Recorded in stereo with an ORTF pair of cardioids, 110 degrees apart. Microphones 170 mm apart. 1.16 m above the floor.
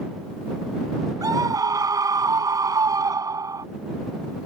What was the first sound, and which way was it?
A scream, 20° right.